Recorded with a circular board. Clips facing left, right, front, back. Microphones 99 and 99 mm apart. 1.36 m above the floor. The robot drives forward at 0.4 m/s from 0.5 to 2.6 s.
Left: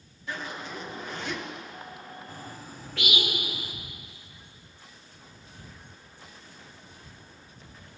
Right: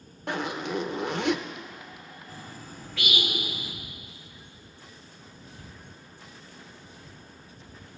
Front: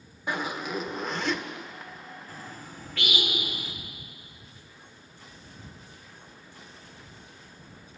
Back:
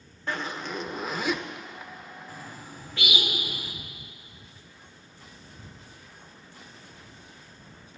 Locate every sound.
0.3 s a zipper: 75° right, 0.8 m; by 1.4 s 105° right, 0.8 m
2.3 s a bird: 115° left, 2.5 m